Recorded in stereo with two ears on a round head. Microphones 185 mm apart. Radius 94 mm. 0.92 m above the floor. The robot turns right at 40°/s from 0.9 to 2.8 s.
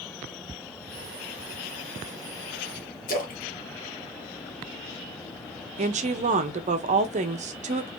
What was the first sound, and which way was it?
A splash, 45° left (ahead or behind).